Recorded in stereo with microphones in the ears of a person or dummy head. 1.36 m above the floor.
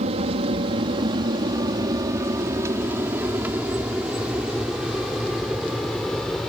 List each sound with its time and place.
0.0 s an aircraft: 35° right (ahead or behind); by 6.5 s 5° left (ahead or behind)